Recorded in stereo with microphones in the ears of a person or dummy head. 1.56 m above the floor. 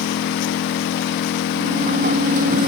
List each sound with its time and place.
0.0 s an engine running: 60° left (ahead or behind)
1.6 s a sliding door: 45° right (ahead or behind)